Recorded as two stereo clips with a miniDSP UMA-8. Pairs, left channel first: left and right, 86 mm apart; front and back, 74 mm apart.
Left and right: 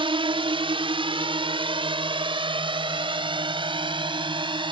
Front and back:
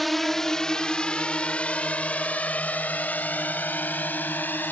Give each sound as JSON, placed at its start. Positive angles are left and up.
{"t": 0.0, "sound": "a drone", "azimuth_deg": -90}